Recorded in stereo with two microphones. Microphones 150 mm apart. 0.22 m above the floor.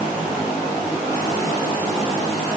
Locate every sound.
Only background noise.